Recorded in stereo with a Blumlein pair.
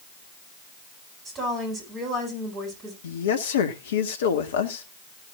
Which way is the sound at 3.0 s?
60° left.